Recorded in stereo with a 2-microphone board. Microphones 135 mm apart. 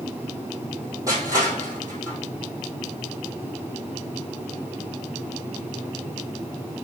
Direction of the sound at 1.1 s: 25° right (ahead or behind).